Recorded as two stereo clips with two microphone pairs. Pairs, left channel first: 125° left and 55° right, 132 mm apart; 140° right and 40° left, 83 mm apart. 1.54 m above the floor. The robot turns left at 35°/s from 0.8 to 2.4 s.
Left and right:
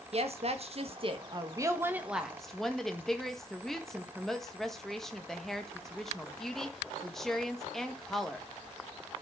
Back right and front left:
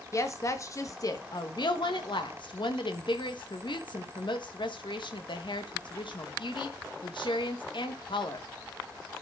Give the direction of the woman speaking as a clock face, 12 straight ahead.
3 o'clock.